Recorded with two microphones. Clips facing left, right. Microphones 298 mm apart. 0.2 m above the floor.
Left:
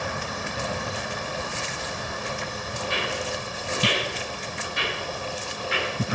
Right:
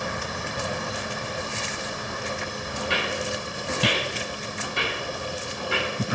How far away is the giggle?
No giggle in this recording.